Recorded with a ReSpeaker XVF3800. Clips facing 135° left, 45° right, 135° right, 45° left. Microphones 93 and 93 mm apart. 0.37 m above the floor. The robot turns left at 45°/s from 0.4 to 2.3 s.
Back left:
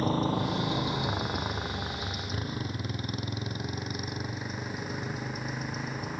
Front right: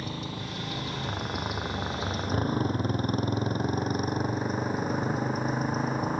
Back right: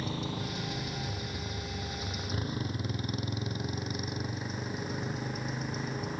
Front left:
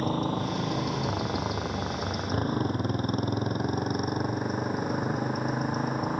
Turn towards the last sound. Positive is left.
turn(degrees=5)